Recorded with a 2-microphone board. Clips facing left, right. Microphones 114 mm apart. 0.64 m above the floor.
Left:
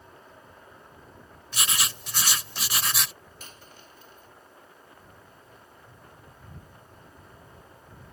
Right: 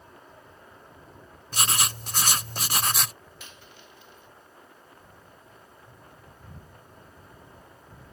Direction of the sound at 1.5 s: 45° right (ahead or behind).